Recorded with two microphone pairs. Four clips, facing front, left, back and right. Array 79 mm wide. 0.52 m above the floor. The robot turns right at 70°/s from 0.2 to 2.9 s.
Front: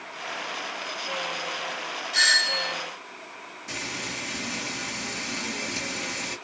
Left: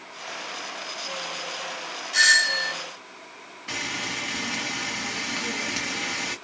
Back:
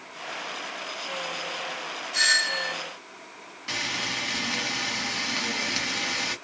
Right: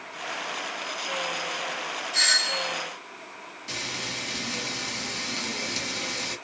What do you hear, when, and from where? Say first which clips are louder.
2.1 s a doorbell: left 8 dB, front 1 dB; 55° left, 1.6 m; by 2.7 s 100° left, 1.6 m
3.7 s frying: left 4 dB, back 3 dB; 145° left, 1.0 m